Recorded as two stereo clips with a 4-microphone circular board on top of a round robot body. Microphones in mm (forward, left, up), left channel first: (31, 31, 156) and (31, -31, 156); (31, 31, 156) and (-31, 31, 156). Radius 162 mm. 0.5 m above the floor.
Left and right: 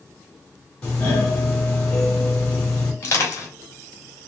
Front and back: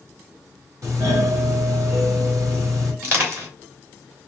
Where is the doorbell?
150° left, 2.5 m.